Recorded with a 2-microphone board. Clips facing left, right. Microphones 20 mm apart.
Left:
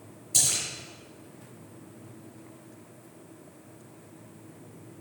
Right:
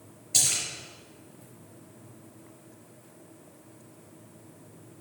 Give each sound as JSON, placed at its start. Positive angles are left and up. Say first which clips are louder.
{"t": 0.3, "sound": "a splash", "louder": "even", "side_deg": -15, "distance_m": 5.0}